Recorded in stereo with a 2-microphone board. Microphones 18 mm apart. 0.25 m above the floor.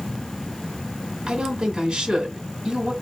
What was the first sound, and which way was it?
A woman speaking, 50° right (ahead or behind).